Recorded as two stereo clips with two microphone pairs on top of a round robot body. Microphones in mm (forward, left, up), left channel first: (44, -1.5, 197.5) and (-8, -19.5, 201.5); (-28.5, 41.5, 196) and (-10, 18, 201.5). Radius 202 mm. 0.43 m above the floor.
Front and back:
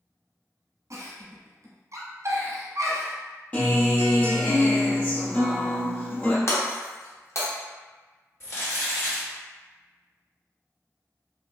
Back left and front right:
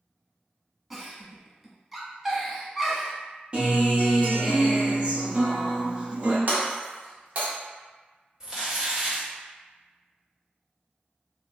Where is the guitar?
5° right, 1.3 m.